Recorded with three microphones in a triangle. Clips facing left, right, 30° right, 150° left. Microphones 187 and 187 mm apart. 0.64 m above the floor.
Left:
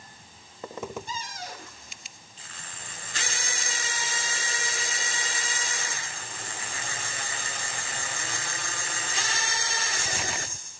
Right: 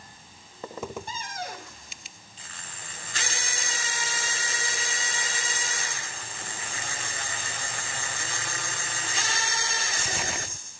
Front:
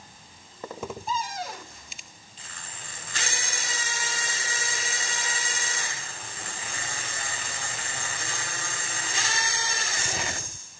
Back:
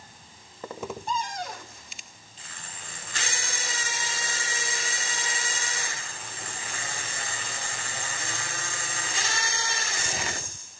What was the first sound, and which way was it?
A cupboard door, 115° right.